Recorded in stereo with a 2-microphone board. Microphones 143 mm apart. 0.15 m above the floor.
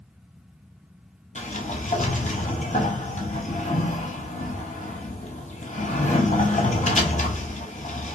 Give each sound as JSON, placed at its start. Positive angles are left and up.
{"t": 1.4, "sound": "a sliding door", "side_deg": 60, "distance_m": 0.7}